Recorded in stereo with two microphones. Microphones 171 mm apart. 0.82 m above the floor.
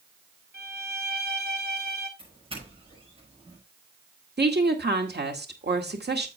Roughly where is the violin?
Right.